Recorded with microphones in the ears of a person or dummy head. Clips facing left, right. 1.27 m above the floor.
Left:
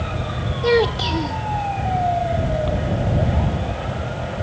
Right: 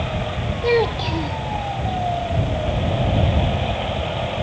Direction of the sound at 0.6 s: 10° left (ahead or behind).